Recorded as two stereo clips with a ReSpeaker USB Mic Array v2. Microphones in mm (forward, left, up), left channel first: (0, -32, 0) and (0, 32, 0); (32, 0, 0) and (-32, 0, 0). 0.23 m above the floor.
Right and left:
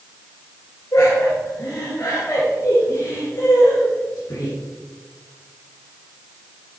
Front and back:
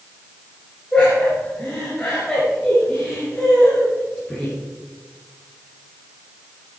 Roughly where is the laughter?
Right.